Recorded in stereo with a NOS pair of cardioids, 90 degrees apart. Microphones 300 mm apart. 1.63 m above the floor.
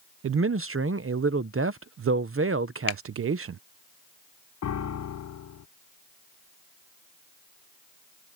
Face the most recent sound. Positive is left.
turn(degrees=60)